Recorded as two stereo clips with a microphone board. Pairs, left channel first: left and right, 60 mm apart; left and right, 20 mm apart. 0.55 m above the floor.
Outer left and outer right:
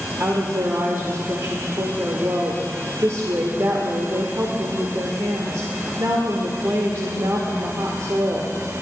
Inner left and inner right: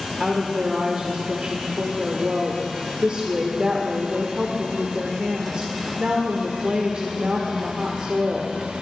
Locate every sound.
0.2 s a woman speaking: 60° right (ahead or behind), 1.2 m